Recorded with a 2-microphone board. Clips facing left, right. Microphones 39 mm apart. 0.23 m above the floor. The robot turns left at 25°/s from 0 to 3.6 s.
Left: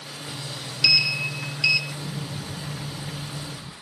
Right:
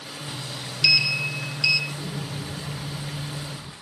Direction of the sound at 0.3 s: 10° right (ahead or behind).